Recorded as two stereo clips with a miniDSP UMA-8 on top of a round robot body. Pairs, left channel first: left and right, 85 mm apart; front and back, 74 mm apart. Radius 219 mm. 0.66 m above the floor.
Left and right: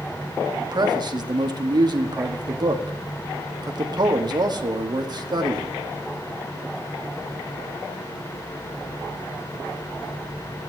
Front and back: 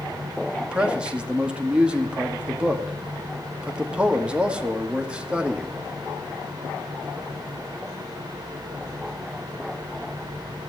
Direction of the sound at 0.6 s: 105° right.